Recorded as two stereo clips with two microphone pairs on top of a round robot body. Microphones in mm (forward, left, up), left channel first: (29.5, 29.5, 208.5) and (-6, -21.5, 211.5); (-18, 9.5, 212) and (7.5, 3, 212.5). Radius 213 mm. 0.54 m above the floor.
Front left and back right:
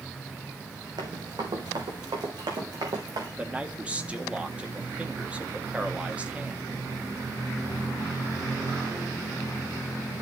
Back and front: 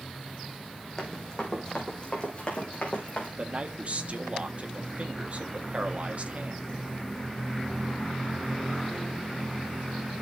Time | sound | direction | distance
1.0 | running footsteps | 125° right | 3 m
3.4 | a man speaking | 55° right | 1.7 m